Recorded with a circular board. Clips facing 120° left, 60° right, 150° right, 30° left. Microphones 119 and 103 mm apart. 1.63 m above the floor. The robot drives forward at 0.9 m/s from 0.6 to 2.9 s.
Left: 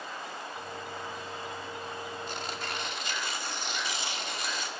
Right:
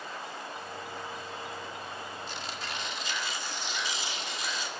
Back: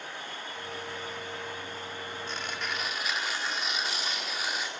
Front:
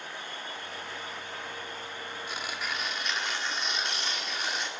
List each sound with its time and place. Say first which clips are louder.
2.3 s tearing paper: left 2 dB, even; 105° left, 1.6 m; by 4.7 s 125° left, 1.8 m